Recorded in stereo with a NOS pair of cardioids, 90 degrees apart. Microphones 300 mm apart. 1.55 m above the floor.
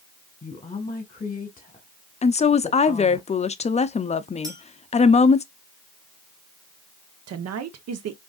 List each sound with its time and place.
0.4 s a woman speaking: 15° left, 1.4 m
2.2 s a woman speaking: 25° left, 0.5 m
4.4 s a clink: 15° right, 2.0 m
7.3 s a woman speaking: 55° right, 0.9 m